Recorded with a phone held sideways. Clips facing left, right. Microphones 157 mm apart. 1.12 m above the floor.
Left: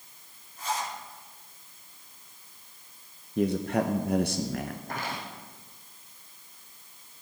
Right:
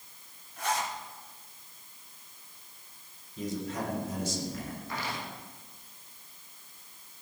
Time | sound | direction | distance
0.6 | a zipper | 80° right | 3 m
3.4 | a man speaking | 65° left (ahead or behind) | 0.8 m
4.9 | footsteps | 50° left (ahead or behind) | 3.5 m